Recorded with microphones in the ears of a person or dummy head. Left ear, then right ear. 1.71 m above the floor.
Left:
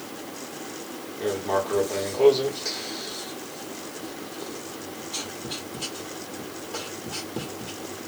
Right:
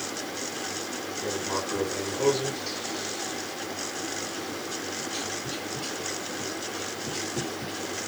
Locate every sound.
1.2 s writing: 75° left (ahead or behind), 1.3 m